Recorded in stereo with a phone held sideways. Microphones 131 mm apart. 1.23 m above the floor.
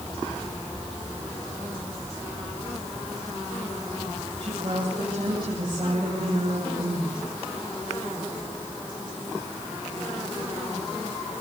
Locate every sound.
4.4 s a woman speaking: 40° right (ahead or behind), 8 m